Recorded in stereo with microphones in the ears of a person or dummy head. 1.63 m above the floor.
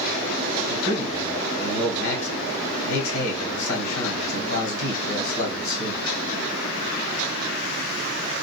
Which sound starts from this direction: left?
A man speaking, at 0.7 s.